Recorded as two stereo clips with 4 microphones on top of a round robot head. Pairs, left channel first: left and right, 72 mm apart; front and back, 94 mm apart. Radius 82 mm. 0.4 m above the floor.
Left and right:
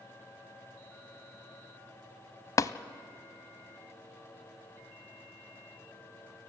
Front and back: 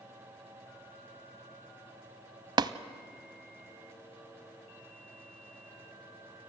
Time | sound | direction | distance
2.6 | tapping | 135° left | 0.5 m